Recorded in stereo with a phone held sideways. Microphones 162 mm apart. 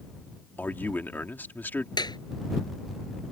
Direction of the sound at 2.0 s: 25° left (ahead or behind).